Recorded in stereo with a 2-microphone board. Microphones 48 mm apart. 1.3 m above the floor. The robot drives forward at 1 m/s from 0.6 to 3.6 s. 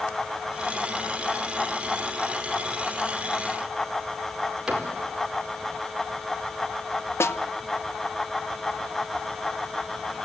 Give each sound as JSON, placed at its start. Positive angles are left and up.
{"t": 4.7, "sound": "a cupboard door", "side_deg": -10, "distance_m": 4.5}
{"t": 7.2, "sound": "a snare drum", "side_deg": 70, "distance_m": 0.8}